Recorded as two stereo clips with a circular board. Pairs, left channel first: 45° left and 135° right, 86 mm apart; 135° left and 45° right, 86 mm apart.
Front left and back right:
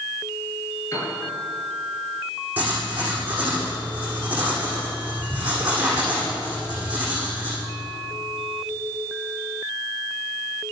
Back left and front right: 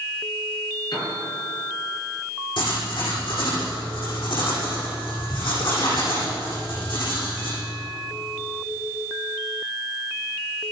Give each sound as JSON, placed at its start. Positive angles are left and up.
{"t": 0.9, "sound": "a piano", "azimuth_deg": 100, "distance_m": 7.0}
{"t": 2.6, "sound": "writing", "azimuth_deg": 155, "distance_m": 5.5}